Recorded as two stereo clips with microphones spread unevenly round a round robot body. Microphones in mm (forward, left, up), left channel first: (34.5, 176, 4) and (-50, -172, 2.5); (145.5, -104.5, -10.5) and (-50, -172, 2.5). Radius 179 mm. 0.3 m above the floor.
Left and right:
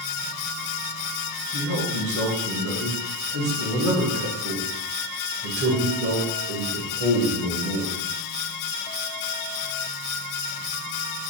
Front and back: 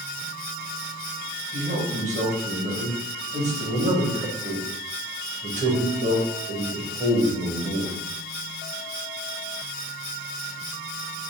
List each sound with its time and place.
1.5 s a man speaking: 115° right, 1.2 m